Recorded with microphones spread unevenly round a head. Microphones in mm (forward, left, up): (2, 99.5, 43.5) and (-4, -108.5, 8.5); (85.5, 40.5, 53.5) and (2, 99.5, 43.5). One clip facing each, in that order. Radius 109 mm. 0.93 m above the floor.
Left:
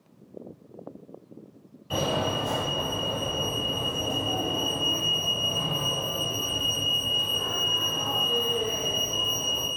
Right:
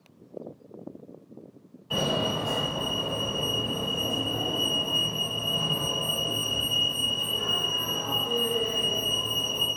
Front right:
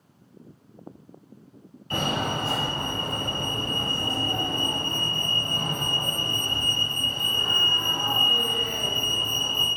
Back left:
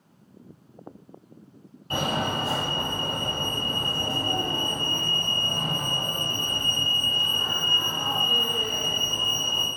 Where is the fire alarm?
140° left, 1.9 m.